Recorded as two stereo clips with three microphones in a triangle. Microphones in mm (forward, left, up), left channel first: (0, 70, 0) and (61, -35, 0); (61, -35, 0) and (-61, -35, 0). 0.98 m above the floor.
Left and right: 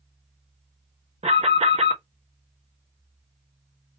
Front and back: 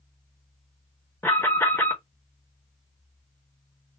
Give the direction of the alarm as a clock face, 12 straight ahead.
2 o'clock.